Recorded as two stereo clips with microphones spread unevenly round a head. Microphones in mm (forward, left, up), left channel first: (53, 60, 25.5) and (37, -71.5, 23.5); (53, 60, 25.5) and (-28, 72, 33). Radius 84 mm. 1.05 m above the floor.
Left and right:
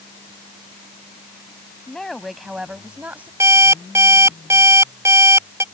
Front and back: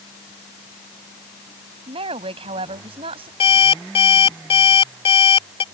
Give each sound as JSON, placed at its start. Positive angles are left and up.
{"t": 1.9, "sound": "a woman speaking", "azimuth_deg": 170}
{"t": 3.4, "sound": "an alarm clock", "azimuth_deg": -25}